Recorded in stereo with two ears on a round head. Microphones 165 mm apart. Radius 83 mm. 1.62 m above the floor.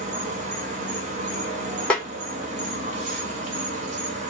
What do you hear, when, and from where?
0.0 s an insect: 40° right (ahead or behind), 0.8 m
1.9 s a snare drum: 5° left (ahead or behind), 0.9 m